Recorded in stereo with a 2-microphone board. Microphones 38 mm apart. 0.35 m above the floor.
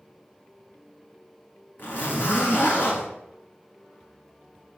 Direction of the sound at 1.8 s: 50° left (ahead or behind).